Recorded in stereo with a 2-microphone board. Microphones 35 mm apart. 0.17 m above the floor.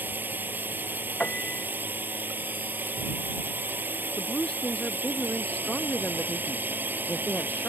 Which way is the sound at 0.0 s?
70° right (ahead or behind).